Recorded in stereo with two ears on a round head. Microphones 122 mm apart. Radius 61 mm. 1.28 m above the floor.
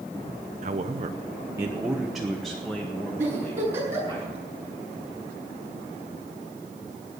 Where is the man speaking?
55° right (ahead or behind), 0.8 m; by 4.2 s 15° left (ahead or behind), 3 m.